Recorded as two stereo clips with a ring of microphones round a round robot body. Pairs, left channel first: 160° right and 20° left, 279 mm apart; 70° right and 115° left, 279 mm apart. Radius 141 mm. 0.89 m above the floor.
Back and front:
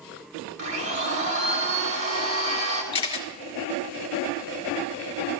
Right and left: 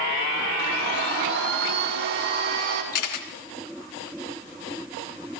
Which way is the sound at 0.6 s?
60° left.